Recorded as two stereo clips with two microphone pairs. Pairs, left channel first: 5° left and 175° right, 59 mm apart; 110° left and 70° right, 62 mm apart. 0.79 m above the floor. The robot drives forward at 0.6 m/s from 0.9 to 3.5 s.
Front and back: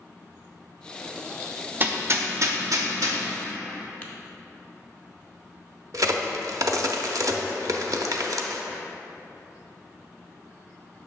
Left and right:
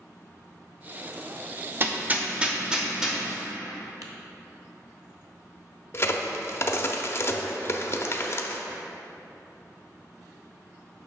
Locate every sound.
1.8 s hammering: 115° right, 0.7 m; by 3.2 s 155° right, 1.3 m
4.0 s tapping: 60° right, 1.2 m
5.9 s a crack: 160° left, 0.6 m